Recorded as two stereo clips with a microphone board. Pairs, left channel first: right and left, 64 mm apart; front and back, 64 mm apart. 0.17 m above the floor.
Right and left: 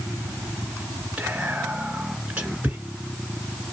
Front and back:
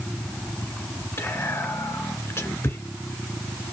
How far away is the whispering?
About 1.8 m.